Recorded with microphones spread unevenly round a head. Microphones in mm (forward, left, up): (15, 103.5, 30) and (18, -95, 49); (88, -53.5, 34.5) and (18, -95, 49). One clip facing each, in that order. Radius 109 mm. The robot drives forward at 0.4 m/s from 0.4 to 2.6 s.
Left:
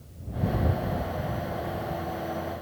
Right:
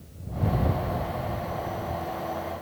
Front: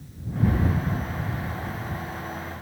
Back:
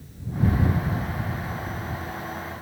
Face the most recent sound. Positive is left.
No sound to turn to.